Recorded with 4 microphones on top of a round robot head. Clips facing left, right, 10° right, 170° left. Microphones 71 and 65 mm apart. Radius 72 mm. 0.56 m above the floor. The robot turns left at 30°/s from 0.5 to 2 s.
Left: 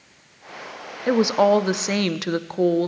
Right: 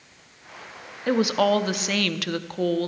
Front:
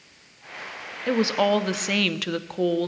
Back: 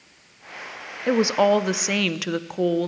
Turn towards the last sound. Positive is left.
turn(degrees=100)